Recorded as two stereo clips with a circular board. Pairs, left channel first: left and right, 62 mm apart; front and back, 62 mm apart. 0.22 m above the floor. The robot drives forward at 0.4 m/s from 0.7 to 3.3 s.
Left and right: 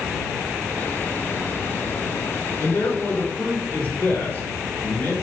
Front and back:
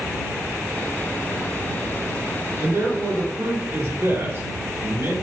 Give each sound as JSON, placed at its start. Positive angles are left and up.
{"t": 2.6, "sound": "a man speaking", "azimuth_deg": 140, "distance_m": 3.0}